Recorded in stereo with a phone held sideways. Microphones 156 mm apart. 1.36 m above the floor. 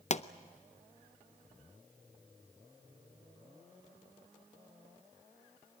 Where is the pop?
45° left (ahead or behind), 0.6 m.